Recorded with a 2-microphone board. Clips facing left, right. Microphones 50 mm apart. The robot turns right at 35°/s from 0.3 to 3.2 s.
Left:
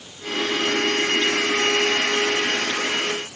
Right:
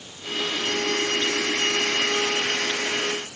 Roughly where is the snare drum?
No snare drum in this recording.